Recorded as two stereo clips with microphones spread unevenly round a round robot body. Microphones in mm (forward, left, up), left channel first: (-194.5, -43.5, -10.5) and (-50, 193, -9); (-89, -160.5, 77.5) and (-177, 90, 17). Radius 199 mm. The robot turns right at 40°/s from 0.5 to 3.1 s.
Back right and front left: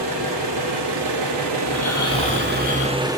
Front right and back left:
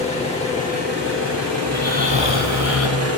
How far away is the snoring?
About 2.5 m.